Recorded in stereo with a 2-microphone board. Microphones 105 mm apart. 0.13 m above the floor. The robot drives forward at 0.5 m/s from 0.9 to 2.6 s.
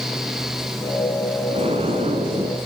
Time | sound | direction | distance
1.5 | an explosion | 80° right | 6 m